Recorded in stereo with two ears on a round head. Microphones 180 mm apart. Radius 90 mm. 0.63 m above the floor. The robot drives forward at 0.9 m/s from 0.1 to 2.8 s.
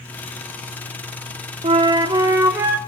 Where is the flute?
30° right (ahead or behind), 0.6 m; by 2.8 s 10° right (ahead or behind), 1.6 m.